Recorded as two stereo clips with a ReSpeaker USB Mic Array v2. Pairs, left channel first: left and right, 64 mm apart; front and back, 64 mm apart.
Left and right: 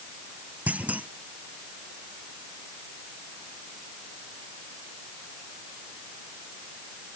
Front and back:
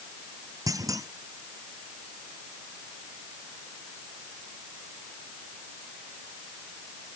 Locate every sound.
0.7 s a clunk: 160° right